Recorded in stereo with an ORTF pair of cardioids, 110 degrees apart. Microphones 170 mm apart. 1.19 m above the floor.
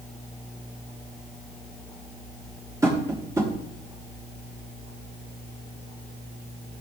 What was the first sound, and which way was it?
Tapping, 20° right.